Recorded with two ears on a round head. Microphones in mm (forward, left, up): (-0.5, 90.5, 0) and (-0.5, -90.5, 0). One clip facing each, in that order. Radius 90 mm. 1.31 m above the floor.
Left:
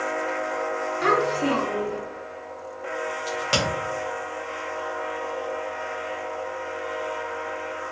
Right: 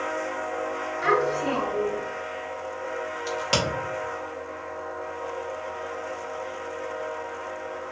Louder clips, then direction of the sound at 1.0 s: Left 1 dB; 75° left (ahead or behind).